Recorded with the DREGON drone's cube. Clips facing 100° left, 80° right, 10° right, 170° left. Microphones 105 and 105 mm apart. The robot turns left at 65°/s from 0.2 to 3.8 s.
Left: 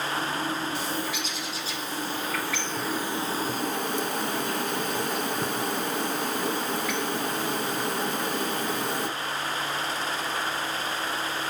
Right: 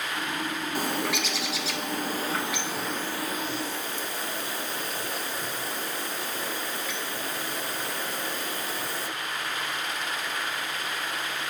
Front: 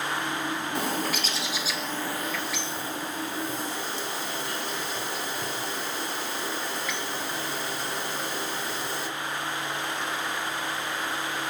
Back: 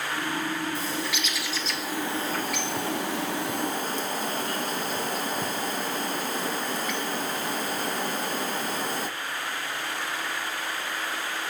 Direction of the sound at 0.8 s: 35° right.